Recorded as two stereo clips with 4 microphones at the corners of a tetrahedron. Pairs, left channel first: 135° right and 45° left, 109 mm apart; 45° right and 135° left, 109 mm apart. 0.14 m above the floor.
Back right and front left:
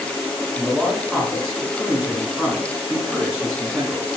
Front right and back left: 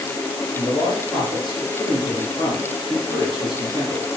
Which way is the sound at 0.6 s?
55° right.